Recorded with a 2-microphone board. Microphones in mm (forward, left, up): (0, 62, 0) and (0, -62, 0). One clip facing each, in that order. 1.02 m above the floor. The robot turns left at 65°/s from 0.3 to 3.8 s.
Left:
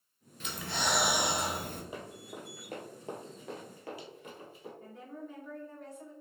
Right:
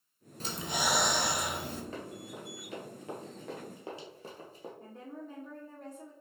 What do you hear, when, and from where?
0.4 s breathing: 145° right, 0.6 m; by 1.8 s 125° left, 0.6 m
1.9 s running footsteps: 15° left (ahead or behind), 1.6 m; by 4.7 s 45° right (ahead or behind), 1.7 m
4.8 s a woman speaking: 30° right (ahead or behind), 1.1 m